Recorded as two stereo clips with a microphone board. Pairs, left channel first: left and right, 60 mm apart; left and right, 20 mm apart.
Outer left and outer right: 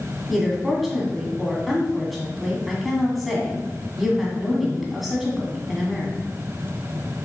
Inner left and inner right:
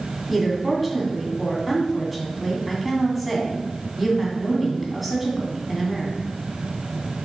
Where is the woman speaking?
Centre (ahead or behind), 2 m.